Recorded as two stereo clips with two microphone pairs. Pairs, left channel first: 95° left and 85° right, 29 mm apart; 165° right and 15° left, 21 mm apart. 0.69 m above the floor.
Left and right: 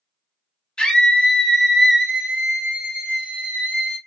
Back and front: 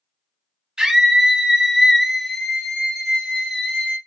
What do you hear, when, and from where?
0.8 s a scream: 50° left, 1.1 m; by 4.0 s 115° right, 1.5 m